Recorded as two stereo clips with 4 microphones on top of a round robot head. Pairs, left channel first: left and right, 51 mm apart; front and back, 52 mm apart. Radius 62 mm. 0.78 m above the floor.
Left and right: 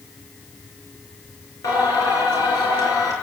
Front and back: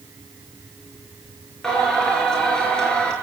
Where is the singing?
75° left, 5.5 m.